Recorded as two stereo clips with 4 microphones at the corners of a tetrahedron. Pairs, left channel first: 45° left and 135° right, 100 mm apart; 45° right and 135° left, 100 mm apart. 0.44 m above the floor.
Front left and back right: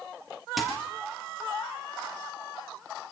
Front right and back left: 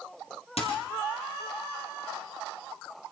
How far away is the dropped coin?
About 5.5 m.